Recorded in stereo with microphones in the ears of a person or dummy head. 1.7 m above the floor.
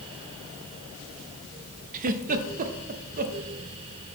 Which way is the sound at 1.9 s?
45° right (ahead or behind).